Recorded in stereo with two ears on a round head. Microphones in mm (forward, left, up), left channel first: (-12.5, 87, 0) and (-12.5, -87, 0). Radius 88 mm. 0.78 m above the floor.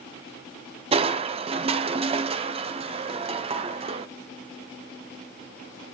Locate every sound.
0.9 s crushing: 30° right (ahead or behind), 0.6 m